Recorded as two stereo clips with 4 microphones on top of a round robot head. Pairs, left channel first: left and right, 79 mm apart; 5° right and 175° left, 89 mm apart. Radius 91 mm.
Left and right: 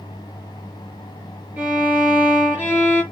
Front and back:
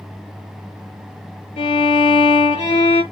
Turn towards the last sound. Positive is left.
turn(degrees=-15)